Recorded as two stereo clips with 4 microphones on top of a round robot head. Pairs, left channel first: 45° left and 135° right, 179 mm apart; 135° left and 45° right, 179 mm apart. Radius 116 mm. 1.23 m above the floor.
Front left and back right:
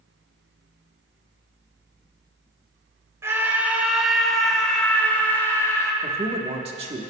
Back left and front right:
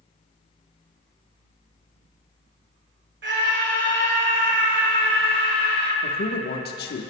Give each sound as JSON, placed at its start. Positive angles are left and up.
{"t": 3.2, "sound": "a scream", "azimuth_deg": -60, "distance_m": 2.5}
{"t": 6.0, "sound": "a man speaking", "azimuth_deg": 165, "distance_m": 1.5}